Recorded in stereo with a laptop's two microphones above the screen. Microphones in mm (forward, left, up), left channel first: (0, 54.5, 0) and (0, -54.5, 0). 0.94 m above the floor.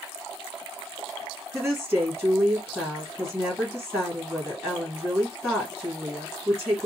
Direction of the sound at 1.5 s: 15° right (ahead or behind).